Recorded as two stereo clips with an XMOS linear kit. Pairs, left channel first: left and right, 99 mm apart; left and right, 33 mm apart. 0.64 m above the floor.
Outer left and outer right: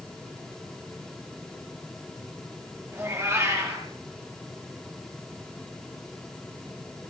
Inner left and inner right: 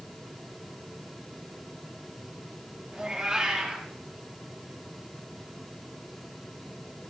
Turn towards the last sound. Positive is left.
turn(degrees=-25)  # may be behind; listen again after turning